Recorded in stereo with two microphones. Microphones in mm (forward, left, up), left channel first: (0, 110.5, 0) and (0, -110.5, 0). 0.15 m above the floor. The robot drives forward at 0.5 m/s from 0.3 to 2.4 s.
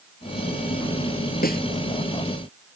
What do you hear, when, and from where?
1.4 s a snare drum: 40° left (ahead or behind); by 1.7 s 45° left (ahead or behind)